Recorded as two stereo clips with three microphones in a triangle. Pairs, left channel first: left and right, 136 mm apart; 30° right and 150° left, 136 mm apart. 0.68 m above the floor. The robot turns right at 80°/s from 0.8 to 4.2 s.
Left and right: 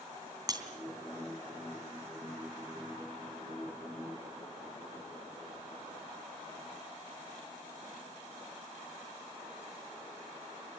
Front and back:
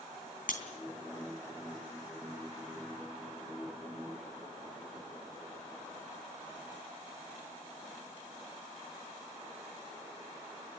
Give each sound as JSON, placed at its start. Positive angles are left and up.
{"t": 0.5, "sound": "breaking glass", "azimuth_deg": -30, "distance_m": 3.0}